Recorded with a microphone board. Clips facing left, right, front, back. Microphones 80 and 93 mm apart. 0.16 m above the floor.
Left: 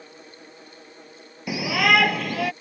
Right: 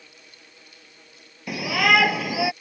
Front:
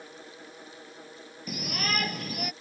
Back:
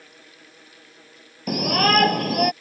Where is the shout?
175° left; by 2.5 s 170° right.